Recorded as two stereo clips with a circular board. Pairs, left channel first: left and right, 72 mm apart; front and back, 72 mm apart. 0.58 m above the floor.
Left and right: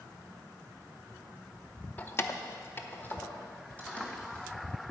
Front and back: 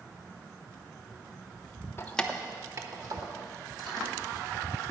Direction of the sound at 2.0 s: 35° left.